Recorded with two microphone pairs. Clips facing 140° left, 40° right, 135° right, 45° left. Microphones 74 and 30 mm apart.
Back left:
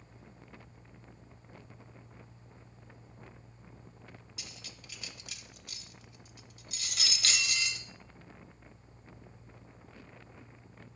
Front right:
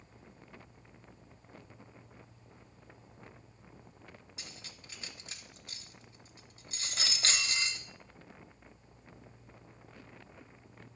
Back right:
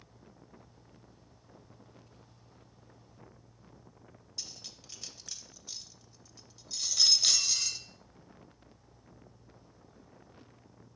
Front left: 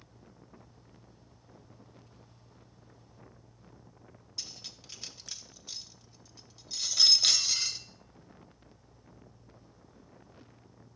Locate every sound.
4.4 s cutlery clinking: 20° right, 0.8 m